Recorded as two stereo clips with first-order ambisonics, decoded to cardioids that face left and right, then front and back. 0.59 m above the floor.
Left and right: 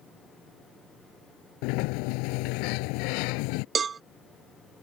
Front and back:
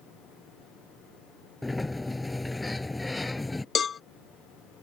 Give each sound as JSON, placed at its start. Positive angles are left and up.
{"t": 1.6, "sound": "a sliding door", "azimuth_deg": 80}
{"t": 3.8, "sound": "a cowbell", "azimuth_deg": -45}